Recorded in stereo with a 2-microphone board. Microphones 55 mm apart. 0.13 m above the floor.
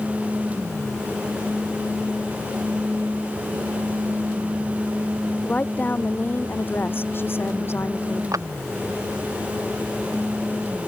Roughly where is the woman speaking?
Left.